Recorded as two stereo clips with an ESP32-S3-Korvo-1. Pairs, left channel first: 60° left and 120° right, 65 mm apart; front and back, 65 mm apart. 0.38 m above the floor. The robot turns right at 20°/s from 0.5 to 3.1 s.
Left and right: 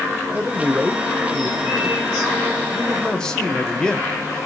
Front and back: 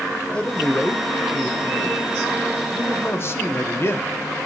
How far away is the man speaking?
About 1.2 m.